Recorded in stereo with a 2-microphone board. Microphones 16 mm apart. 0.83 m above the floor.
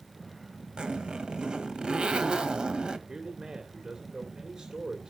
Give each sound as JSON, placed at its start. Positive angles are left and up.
{"t": 0.8, "sound": "a zipper", "side_deg": -75, "distance_m": 1.8}
{"t": 3.1, "sound": "a man speaking", "side_deg": -50, "distance_m": 3.0}